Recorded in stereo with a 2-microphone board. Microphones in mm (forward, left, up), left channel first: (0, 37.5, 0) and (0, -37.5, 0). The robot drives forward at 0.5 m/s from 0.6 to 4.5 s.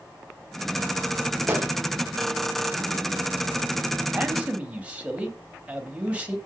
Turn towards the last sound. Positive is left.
turn(degrees=-20)  # may be behind; listen again after turning